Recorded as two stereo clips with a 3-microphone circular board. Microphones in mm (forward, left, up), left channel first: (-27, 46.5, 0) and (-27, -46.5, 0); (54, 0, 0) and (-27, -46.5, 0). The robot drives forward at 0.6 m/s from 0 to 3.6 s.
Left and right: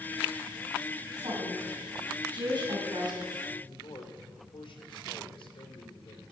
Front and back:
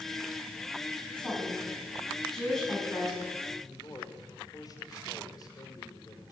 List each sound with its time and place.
1.2 s a woman speaking: 50° right, 6.5 m; by 3.2 s 60° right, 6 m
3.6 s a man speaking: 75° left, 3 m